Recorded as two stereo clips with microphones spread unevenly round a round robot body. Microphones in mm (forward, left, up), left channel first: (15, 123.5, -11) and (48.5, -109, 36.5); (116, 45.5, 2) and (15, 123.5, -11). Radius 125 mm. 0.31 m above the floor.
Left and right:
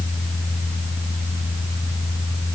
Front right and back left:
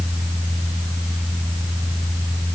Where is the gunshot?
No gunshot in this recording.